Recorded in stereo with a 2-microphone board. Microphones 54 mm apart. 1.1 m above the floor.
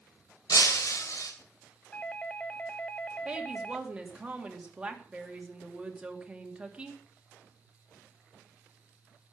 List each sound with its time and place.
0.5 s breaking glass: 70° left (ahead or behind), 2.5 m
1.9 s a doorbell: 20° left (ahead or behind), 0.6 m
3.2 s a woman speaking: 20° right (ahead or behind), 2.5 m